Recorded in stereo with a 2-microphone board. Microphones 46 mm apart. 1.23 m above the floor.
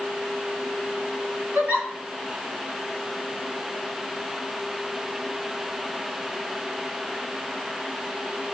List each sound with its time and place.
1.6 s a giggle: 50° right (ahead or behind), 2 m